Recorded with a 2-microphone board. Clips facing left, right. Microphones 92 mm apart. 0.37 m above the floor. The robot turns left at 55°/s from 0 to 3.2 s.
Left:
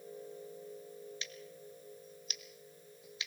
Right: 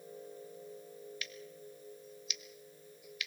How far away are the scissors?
About 1.4 m.